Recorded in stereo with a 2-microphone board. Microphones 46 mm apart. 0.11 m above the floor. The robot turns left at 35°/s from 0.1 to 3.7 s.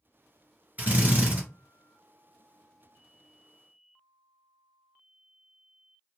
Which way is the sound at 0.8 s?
35° right (ahead or behind).